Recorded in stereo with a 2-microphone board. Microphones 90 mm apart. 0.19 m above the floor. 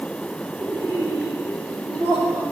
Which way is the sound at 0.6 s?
35° right (ahead or behind).